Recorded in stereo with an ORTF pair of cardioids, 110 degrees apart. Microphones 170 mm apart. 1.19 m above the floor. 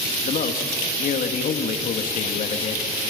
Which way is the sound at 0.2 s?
55° left.